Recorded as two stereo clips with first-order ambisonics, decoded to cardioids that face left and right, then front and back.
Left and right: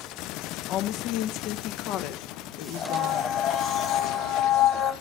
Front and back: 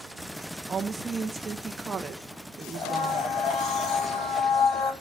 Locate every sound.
0.7 s a woman speaking: 110° left, 0.7 m
2.7 s a blender: 35° left, 5.5 m